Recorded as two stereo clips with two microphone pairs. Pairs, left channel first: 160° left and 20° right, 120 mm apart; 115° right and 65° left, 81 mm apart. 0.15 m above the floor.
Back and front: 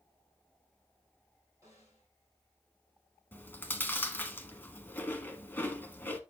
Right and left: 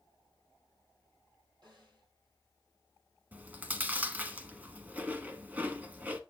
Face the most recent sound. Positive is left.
turn(degrees=105)